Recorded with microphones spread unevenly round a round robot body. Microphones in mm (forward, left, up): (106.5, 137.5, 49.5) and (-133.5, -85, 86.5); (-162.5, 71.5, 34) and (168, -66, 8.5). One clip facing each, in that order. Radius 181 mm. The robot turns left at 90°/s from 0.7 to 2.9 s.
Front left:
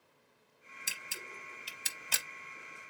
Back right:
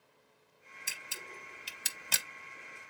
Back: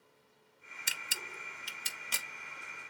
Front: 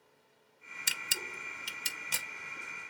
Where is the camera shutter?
5° right, 0.7 m; by 2.2 s 130° right, 0.7 m.